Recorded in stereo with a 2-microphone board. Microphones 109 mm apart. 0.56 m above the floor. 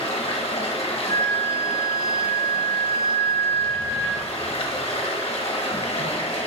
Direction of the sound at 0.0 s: 60° left (ahead or behind).